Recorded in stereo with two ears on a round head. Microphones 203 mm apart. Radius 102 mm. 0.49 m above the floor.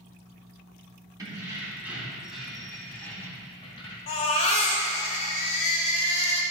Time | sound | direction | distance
1.2 | keys jangling | 15° right (ahead or behind) | 2.5 m
4.1 | a baby crying | 30° left (ahead or behind) | 1.6 m